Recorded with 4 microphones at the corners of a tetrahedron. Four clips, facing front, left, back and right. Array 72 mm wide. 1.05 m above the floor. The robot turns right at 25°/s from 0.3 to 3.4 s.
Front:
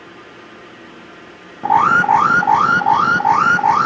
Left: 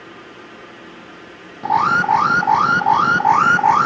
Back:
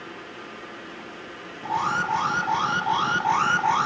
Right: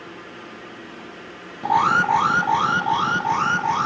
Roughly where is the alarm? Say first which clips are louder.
Left 2 dB, front 13 dB; ahead.